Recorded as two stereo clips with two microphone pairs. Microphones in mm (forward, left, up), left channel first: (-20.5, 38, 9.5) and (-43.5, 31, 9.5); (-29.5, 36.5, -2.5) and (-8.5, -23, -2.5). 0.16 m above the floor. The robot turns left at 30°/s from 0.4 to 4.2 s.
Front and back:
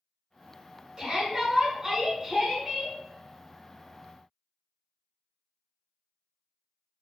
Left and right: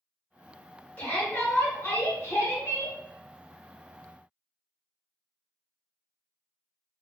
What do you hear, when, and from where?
1.0 s a shout: 165° left, 1.9 m; by 3.0 s 105° left, 1.9 m